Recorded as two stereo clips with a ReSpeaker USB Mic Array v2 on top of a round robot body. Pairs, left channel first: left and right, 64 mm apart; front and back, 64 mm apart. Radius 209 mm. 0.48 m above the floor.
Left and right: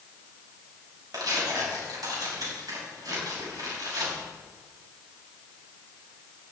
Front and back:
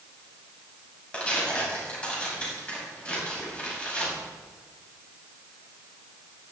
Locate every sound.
1.1 s tearing paper: 70° right, 5.5 m